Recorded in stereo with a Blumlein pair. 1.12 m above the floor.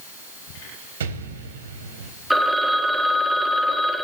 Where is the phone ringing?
Straight ahead, 1.5 m.